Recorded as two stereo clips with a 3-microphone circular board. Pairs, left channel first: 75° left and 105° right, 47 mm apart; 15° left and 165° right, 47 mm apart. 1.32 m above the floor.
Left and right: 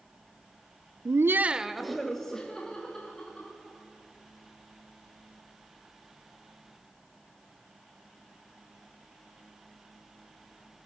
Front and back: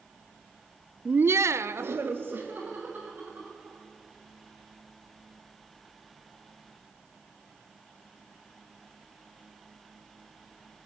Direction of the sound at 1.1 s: 100° right.